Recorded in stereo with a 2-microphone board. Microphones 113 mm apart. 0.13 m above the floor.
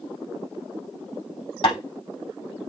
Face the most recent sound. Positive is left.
turn(degrees=50)  # may be behind; listen again after turning